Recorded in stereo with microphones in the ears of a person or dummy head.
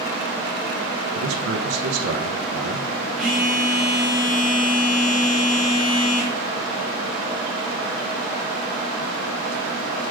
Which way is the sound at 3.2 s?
5° right (ahead or behind).